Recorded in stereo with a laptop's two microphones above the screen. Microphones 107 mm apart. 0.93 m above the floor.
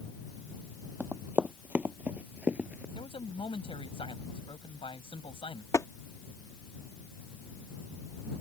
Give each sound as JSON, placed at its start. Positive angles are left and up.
{"t": 1.0, "sound": "running footsteps", "side_deg": -15}
{"t": 3.0, "sound": "a man speaking", "side_deg": 55}
{"t": 5.7, "sound": "tapping", "side_deg": 30}